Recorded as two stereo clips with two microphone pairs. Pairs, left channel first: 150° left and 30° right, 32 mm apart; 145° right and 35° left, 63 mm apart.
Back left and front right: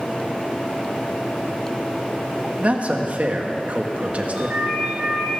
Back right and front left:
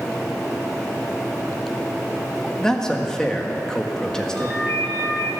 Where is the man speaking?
65° right, 1.5 m.